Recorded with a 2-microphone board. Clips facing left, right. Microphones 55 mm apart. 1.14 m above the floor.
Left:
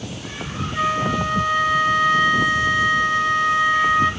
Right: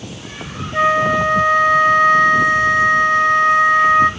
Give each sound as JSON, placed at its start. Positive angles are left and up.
{"t": 0.7, "sound": "a flute", "side_deg": -50, "distance_m": 0.9}